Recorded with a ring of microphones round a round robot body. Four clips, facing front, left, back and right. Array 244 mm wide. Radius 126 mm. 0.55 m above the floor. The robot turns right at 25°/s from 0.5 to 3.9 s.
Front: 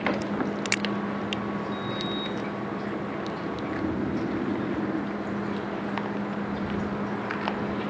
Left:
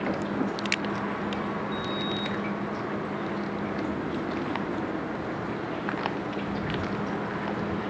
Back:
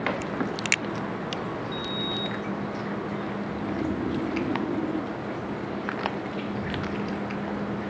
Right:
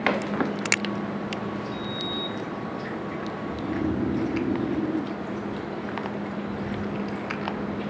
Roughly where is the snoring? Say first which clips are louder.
Right 3 dB, even; right.